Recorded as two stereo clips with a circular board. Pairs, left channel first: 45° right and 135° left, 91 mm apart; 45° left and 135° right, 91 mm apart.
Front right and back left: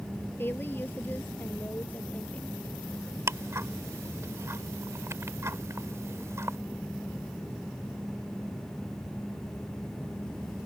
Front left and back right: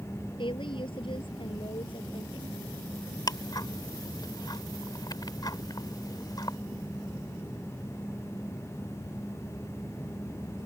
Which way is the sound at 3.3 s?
80° left.